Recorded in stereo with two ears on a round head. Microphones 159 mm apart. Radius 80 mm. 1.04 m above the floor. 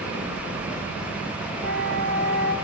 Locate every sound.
1.6 s a flute: 70° right (ahead or behind), 2 m